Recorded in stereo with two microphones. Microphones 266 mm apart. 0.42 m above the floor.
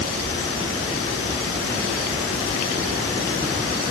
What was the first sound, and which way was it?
Only background noise.